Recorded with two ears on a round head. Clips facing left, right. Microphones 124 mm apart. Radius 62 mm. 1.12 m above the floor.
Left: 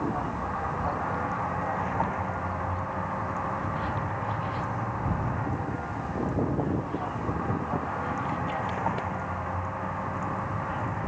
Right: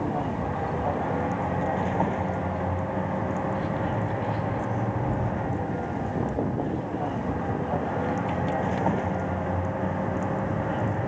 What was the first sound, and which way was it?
A vehicle, 30° right (ahead or behind).